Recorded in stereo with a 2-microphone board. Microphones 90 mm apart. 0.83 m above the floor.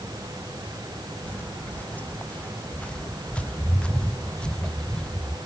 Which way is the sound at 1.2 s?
20° left (ahead or behind).